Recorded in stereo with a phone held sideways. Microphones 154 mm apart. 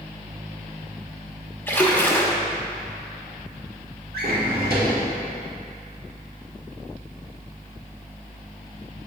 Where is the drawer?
85° right, 1.4 m.